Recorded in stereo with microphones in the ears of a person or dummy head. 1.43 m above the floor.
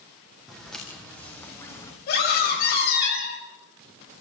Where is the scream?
50° left (ahead or behind), 7.5 m.